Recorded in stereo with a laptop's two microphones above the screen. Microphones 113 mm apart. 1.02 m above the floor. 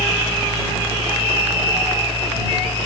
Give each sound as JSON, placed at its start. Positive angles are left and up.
{"t": 0.0, "sound": "a fan", "side_deg": 55}